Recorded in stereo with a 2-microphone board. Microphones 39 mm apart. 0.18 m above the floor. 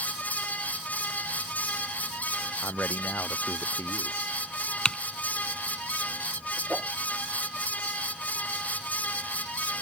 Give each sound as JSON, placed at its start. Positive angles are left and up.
{"t": 2.6, "sound": "a man speaking", "side_deg": 70}
{"t": 4.8, "sound": "typing on a keyboard", "side_deg": 20}
{"t": 6.7, "sound": "a whoosh", "side_deg": -25}